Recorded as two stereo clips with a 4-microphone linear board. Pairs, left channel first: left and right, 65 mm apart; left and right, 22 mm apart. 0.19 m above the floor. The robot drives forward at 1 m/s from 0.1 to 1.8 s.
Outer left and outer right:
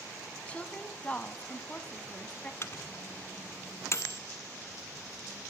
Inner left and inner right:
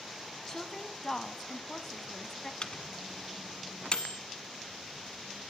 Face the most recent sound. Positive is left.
turn(degrees=45)  # may be behind; listen again after turning